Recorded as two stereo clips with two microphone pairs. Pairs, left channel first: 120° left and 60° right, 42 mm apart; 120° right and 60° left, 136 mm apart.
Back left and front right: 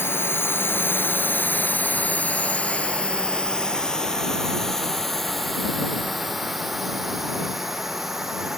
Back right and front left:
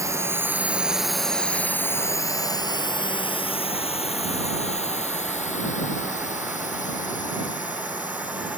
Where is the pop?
I don't hear a pop.